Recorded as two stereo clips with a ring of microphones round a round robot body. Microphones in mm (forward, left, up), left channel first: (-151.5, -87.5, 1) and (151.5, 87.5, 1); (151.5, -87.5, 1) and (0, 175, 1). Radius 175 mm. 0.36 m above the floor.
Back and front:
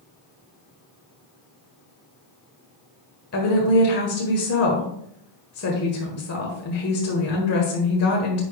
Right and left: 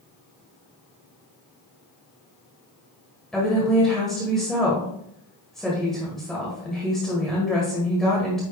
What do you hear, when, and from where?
3.3 s a woman speaking: 145° right, 1.5 m